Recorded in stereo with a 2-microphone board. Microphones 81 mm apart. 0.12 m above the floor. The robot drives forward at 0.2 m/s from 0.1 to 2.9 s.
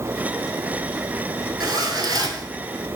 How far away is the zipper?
About 0.6 m.